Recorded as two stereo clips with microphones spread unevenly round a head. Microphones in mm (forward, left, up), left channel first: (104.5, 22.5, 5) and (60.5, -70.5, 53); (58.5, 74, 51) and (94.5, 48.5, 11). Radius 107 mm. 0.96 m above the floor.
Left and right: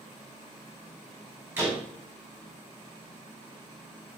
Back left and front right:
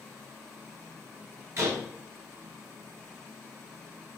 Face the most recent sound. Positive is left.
turn(degrees=-50)